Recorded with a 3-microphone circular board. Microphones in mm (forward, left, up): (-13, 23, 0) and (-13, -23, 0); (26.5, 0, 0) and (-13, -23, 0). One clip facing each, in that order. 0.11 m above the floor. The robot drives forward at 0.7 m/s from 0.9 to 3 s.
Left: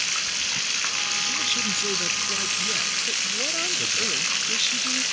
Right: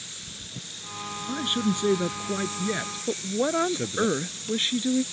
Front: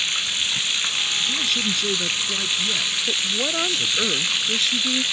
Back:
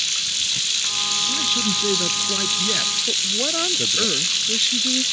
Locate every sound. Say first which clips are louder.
0.0 s running water: left 15 dB, front 2 dB; 95° left
1.3 s a man speaking: even, even; 65° right; by 4.1 s 140° right
3.1 s a woman speaking: right 3 dB, front 1 dB; 65° right